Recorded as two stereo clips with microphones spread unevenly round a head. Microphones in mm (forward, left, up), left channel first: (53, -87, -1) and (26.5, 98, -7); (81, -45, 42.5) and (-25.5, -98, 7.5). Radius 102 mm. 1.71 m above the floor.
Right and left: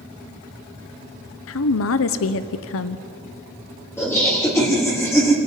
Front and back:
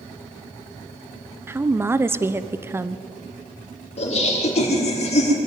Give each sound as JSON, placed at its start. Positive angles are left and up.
{"t": 1.5, "sound": "a woman speaking", "azimuth_deg": -80, "distance_m": 1.0}
{"t": 4.0, "sound": "laughter", "azimuth_deg": -5, "distance_m": 5.0}